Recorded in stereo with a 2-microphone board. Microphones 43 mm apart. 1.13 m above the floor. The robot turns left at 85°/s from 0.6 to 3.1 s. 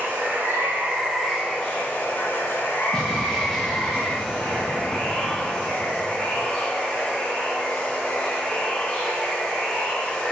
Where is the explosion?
15° left (ahead or behind), 1.9 m; by 6.5 s 5° left (ahead or behind), 1.9 m.